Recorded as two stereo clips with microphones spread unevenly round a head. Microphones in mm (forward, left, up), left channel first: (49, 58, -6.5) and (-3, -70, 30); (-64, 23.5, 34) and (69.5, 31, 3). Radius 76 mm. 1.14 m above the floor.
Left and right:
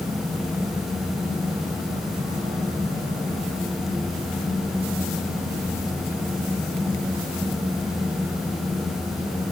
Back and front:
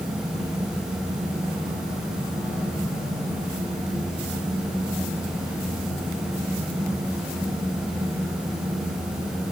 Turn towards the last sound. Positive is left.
No sound to turn to.